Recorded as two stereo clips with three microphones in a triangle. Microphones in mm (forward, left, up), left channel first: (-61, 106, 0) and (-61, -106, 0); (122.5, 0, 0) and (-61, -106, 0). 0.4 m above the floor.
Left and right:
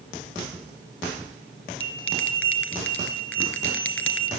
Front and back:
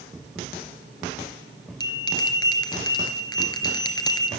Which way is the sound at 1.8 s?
100° left.